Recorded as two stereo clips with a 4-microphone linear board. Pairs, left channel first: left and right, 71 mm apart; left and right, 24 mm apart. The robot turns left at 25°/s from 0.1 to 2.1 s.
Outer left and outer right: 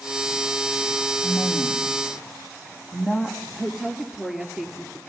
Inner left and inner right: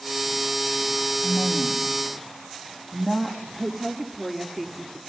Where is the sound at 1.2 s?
15° left (ahead or behind), 5.5 m; by 3.5 s 10° right (ahead or behind), 5.5 m.